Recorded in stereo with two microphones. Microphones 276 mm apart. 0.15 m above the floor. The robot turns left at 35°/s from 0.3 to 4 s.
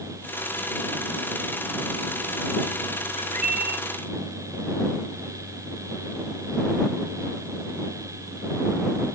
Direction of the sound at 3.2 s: 25° right (ahead or behind).